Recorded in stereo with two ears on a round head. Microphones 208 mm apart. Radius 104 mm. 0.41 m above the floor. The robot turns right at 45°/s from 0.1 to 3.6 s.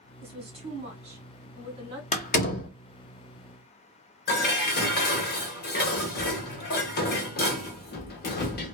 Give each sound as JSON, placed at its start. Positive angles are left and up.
{"t": 0.2, "sound": "a woman speaking", "side_deg": -25, "distance_m": 1.4}
{"t": 2.1, "sound": "a door slam", "side_deg": 30, "distance_m": 0.6}
{"t": 4.3, "sound": "dishes clattering", "side_deg": 45, "distance_m": 0.8}